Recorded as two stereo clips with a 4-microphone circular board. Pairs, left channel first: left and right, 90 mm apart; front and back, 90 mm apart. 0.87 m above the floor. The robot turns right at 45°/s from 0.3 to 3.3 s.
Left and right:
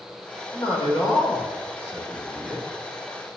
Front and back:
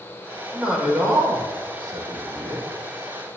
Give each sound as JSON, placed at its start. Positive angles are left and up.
{"t": 0.5, "sound": "a man speaking", "azimuth_deg": 95, "distance_m": 2.5}